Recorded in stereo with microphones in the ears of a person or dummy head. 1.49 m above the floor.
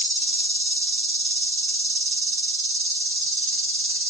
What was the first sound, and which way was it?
An insect, 35° right (ahead or behind).